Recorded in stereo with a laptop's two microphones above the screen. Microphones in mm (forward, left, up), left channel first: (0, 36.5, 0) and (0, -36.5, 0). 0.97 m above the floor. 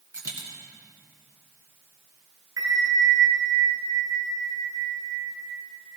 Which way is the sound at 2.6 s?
70° right (ahead or behind).